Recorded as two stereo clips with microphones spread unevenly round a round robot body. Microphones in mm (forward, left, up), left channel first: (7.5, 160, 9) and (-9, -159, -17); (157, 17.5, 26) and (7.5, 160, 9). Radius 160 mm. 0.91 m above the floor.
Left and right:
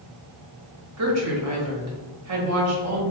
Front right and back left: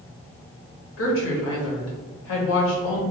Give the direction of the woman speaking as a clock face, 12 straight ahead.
2 o'clock.